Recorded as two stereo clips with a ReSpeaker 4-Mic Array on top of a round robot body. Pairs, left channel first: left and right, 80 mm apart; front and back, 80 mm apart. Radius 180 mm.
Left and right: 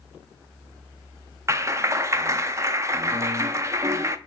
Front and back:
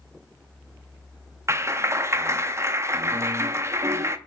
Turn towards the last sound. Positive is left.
turn(degrees=-135)